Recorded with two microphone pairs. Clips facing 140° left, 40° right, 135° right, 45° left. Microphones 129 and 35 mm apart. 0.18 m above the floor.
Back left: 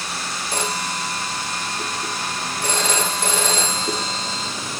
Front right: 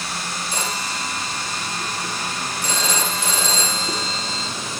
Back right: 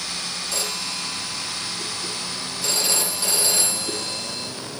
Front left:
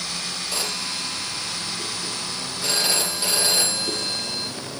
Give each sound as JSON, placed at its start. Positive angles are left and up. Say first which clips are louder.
{"t": 0.5, "sound": "a phone ringing", "louder": "back left 4 dB, front left 1 dB", "azimuth_deg": 110, "distance_m": 4.5}